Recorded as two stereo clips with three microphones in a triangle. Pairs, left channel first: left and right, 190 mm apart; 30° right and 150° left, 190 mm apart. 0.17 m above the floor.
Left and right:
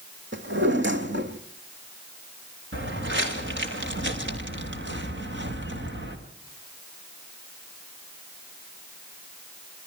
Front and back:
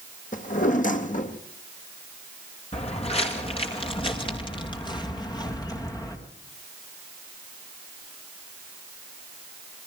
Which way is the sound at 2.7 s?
85° right.